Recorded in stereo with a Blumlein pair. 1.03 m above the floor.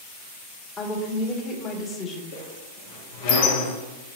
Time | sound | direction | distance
0.8 | a woman speaking | 20° left | 1.7 m
2.3 | a squeak | 50° left | 1.2 m